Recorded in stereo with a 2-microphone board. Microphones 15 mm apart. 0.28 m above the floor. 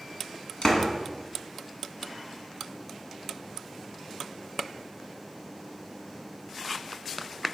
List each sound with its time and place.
0.6 s a door slam: 55° left (ahead or behind), 1.5 m